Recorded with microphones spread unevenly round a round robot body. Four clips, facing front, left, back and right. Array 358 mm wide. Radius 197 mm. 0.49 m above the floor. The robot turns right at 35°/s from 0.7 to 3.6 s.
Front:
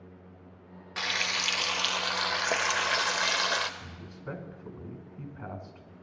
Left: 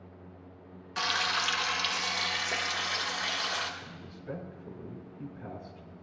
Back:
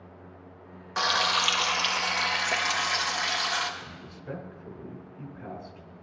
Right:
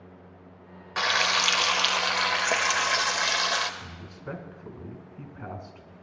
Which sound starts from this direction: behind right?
Frying, at 1.0 s.